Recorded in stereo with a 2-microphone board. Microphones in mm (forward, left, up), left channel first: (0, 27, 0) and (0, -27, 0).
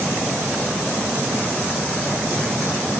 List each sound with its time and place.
Only background noise.